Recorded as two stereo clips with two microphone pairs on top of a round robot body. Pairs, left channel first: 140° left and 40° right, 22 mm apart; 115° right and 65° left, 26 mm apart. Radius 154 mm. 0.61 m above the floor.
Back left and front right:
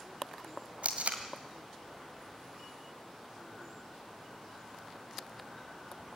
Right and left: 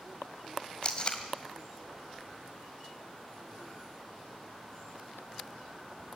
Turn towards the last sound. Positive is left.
turn(degrees=-60)